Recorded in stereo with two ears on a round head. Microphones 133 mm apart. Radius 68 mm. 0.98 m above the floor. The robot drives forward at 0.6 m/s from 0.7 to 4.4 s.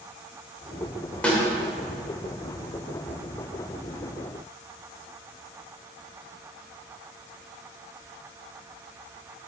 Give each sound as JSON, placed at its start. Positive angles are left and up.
{"t": 1.2, "sound": "a snare drum", "side_deg": 10, "distance_m": 1.7}